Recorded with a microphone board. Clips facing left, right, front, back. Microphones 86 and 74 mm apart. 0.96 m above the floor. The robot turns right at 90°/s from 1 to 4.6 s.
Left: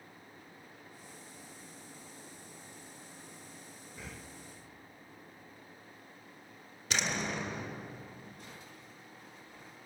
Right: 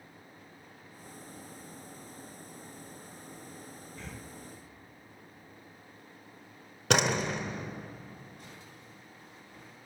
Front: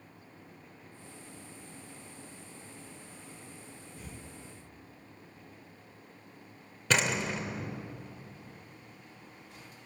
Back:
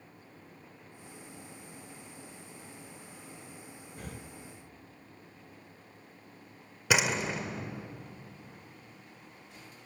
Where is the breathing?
170° left, 0.6 m; by 4.3 s 160° right, 0.6 m.